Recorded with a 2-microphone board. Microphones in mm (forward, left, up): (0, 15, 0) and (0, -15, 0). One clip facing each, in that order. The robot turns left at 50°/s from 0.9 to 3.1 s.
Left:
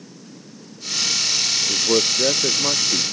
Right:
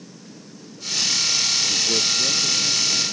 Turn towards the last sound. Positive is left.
turn(degrees=75)